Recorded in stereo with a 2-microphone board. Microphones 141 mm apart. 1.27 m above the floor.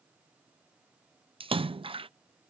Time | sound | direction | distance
1.4 | a splash | 40° right (ahead or behind) | ?